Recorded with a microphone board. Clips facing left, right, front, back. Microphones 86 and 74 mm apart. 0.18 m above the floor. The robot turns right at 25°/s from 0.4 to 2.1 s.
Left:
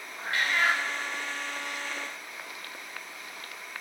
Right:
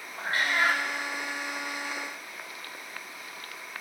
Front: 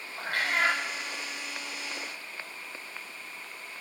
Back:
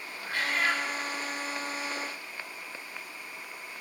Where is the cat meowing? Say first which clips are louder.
Right 1 dB, front 2 dB; 30° right, 2.5 m; by 0.8 s 20° right, 2.5 m.